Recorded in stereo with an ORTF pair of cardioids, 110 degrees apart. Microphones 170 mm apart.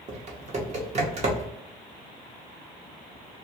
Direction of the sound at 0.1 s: 45° right.